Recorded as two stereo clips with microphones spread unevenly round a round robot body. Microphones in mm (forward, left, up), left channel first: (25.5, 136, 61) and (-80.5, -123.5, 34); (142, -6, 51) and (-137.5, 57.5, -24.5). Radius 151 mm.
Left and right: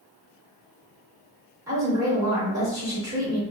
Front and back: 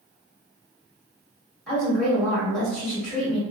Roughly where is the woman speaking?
Behind right.